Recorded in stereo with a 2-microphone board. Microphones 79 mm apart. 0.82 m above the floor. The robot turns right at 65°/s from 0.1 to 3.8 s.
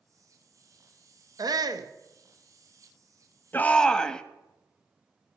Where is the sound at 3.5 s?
25° left (ahead or behind), 0.8 m; by 4.2 s 10° left (ahead or behind), 0.8 m.